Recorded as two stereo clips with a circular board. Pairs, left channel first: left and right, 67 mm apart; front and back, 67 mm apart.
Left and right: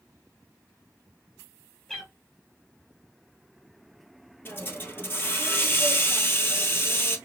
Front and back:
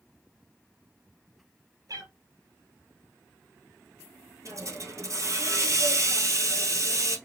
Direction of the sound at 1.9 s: 170° left.